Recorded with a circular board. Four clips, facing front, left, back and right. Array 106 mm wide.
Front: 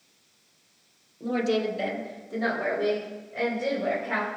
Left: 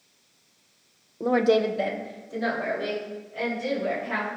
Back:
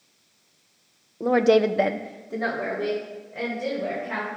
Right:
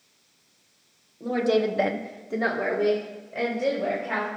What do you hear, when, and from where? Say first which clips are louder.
1.2 s a woman speaking: left 2 dB, back 8 dB; 140° left, 0.8 m; by 4.3 s 90° right, 3.5 m